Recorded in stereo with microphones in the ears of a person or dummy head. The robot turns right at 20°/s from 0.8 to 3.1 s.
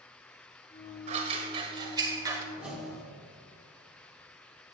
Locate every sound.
1.1 s scissors: 40° right (ahead or behind), 1.8 m; by 2.4 s 15° right (ahead or behind), 1.8 m
2.5 s a whoosh: 10° right (ahead or behind), 3 m; by 3.0 s centre (ahead or behind), 3 m